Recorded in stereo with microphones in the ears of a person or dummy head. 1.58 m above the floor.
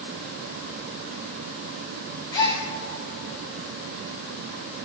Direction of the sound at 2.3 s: 15° left (ahead or behind).